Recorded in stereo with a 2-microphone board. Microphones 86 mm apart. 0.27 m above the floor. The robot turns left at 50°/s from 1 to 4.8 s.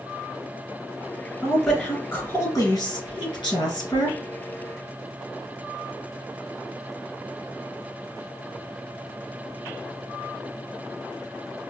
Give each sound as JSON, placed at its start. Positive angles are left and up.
{"t": 1.4, "sound": "a woman speaking", "azimuth_deg": 180, "distance_m": 2.0}